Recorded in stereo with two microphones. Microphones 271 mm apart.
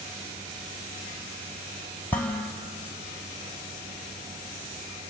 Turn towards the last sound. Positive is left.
turn(degrees=5)  # may be behind; listen again after turning